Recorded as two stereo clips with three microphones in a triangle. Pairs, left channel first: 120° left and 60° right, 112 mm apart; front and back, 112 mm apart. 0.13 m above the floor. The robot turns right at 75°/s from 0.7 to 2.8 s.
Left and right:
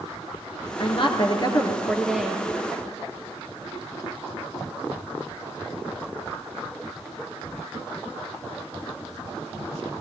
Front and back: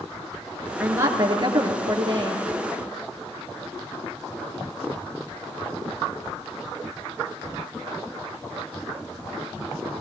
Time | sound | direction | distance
0.8 | a woman speaking | 105° left | 2.5 m